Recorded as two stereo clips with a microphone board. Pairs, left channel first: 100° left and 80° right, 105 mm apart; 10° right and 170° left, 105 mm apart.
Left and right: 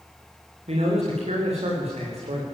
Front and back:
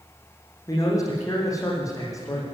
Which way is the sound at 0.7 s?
70° right.